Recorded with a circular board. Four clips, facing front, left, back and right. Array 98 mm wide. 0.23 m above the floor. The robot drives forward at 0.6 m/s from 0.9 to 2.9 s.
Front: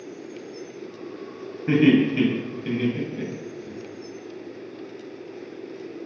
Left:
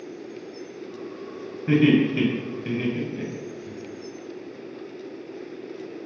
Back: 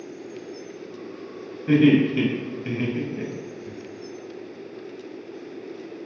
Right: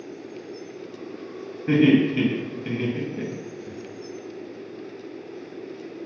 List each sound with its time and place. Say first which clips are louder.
1.7 s laughter: right 1 dB, back 1 dB; 10° left, 0.9 m; by 3.7 s 175° left, 1.0 m